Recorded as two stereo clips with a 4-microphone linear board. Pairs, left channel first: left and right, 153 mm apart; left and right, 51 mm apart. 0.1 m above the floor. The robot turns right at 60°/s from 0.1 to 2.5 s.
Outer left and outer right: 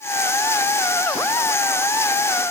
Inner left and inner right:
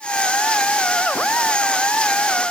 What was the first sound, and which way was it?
Only background noise.